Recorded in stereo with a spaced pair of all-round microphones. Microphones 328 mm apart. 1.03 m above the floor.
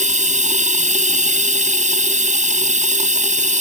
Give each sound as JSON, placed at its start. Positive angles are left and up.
{"t": 0.0, "sound": "running water", "side_deg": -20}